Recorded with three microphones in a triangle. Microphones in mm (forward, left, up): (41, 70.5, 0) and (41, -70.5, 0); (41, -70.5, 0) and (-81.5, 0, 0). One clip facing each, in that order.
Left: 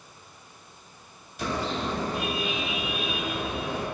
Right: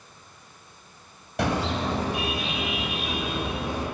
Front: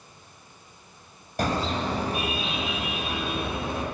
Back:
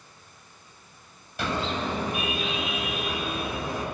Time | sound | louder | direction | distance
1.4 | a car horn | right 4 dB, front 2 dB | 80° right | 3 m